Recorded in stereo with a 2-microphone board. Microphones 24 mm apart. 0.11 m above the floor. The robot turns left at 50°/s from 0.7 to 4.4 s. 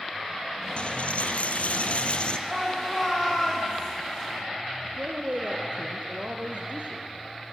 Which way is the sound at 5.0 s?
55° right (ahead or behind).